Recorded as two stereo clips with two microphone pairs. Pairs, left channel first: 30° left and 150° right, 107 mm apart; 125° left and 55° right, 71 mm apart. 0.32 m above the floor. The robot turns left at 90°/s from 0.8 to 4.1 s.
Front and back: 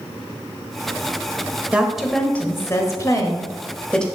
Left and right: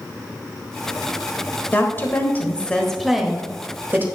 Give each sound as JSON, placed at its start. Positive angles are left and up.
{"t": 1.7, "sound": "a woman speaking", "azimuth_deg": 155, "distance_m": 1.2}